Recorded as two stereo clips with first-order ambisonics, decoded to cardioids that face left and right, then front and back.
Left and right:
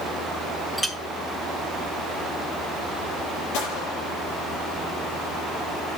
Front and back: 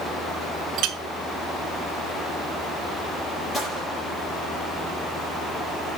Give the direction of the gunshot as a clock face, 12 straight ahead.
9 o'clock.